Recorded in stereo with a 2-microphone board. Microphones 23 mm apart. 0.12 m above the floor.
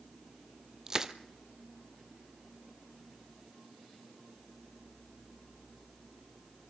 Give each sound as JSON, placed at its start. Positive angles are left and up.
{"t": 0.9, "sound": "crushing", "side_deg": -25, "distance_m": 0.9}